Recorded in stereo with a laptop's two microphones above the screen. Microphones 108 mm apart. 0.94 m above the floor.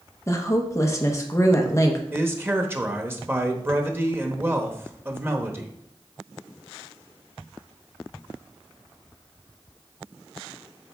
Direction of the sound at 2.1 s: 20° right (ahead or behind).